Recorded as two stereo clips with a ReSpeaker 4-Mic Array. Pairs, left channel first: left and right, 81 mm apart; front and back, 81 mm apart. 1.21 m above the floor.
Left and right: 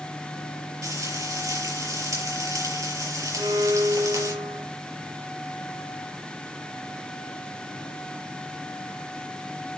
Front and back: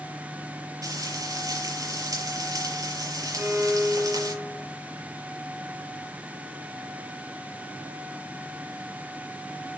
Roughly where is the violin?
Behind right.